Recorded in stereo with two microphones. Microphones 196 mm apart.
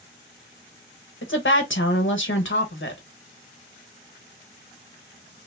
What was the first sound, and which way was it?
A woman speaking, 80° left.